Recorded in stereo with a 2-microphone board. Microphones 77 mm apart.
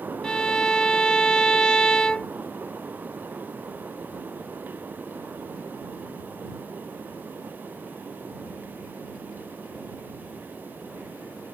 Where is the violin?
10° left (ahead or behind).